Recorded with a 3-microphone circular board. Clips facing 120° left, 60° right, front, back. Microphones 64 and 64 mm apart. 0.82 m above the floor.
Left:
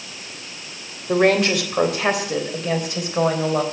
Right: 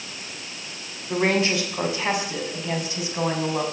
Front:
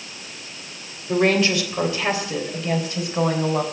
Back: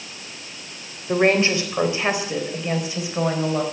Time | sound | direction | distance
1.1 | a woman speaking | 125° left | 3 m